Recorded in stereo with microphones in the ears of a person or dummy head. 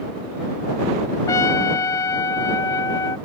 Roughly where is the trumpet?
Centre.